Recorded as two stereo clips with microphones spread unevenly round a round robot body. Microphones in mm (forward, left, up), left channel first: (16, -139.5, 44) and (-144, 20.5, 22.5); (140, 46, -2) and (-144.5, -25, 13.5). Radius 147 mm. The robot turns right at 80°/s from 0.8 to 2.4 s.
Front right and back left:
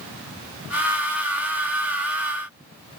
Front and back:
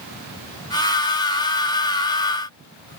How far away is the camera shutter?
I don't hear a camera shutter.